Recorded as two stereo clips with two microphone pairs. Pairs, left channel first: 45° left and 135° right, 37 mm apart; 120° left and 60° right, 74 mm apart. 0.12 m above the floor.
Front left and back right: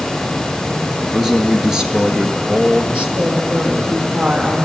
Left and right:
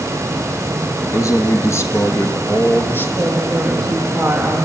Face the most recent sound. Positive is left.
turn(degrees=-150)